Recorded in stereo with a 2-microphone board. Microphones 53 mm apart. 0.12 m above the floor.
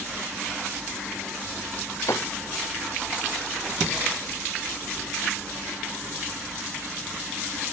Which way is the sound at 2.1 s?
70° left (ahead or behind).